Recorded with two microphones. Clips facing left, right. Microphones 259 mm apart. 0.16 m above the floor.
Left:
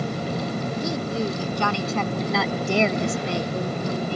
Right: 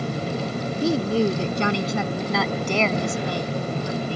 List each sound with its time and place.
0.8 s a woman speaking: 40° right (ahead or behind); by 4.2 s 50° left (ahead or behind)